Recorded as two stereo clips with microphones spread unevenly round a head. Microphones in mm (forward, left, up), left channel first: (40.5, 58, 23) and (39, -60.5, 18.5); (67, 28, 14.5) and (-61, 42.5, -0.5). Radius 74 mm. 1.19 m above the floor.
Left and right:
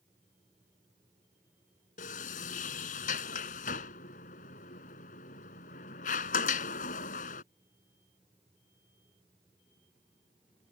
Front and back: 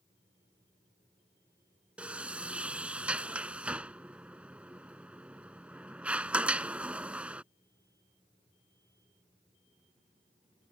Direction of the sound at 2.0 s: 90° left.